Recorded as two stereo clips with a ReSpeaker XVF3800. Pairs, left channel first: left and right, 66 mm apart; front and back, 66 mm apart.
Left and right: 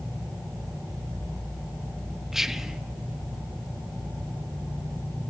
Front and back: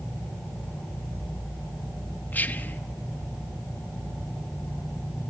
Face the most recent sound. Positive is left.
turn(degrees=-10)